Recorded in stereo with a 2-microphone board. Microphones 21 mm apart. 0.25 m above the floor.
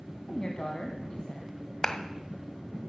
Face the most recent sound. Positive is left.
turn(degrees=30)  # may be behind; listen again after turning